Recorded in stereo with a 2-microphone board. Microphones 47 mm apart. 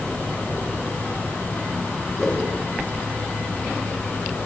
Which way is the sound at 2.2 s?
5° left (ahead or behind).